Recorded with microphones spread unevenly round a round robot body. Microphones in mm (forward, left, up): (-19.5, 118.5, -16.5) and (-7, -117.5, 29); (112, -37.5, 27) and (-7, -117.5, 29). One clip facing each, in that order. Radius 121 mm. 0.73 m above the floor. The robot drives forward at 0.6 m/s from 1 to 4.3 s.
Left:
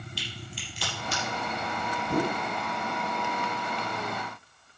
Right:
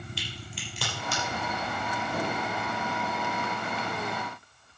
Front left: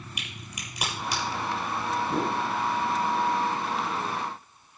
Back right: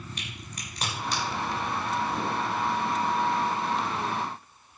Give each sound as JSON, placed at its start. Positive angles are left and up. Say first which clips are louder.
{"t": 0.2, "sound": "a crack", "louder": "even, even", "azimuth_deg": -45, "distance_m": 5.5}
{"t": 2.1, "sound": "a whoosh", "louder": "left 6 dB, front left 2 dB", "azimuth_deg": 75, "distance_m": 0.9}